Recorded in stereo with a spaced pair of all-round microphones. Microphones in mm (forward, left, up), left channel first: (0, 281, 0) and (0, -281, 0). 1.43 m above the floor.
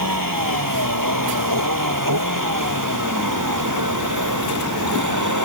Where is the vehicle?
35° right (ahead or behind); by 5.5 s 30° right (ahead or behind).